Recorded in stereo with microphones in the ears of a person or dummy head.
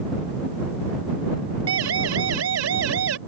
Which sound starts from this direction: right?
A siren, at 1.7 s.